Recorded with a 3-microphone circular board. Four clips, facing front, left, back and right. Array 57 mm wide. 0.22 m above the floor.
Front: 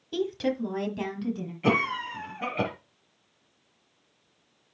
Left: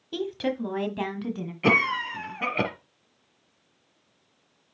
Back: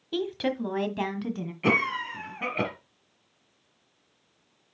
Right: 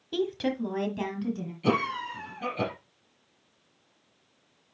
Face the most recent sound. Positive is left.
turn(degrees=115)